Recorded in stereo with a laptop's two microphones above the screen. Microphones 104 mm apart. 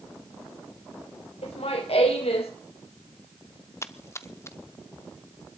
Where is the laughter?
80° left, 3.5 m.